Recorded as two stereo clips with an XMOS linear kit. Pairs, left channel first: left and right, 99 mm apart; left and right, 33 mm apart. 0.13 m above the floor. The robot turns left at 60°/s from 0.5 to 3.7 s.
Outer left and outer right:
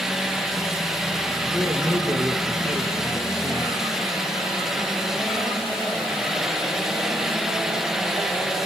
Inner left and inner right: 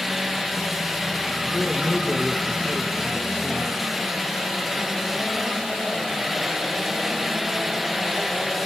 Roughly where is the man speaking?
Ahead.